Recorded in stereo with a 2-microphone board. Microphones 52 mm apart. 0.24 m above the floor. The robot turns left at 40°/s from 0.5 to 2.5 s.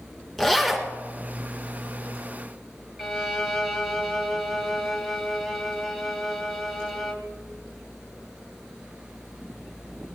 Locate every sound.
0.4 s a zipper: 5° left (ahead or behind), 1.8 m; by 0.9 s 5° right (ahead or behind), 1.8 m
3.0 s a violin: 5° left (ahead or behind), 1.3 m